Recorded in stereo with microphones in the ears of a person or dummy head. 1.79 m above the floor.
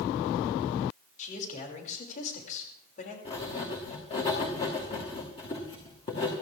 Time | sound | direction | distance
1.2 | a man speaking | 45° left (ahead or behind) | 6 m
3.2 | writing | 25° left (ahead or behind) | 2.5 m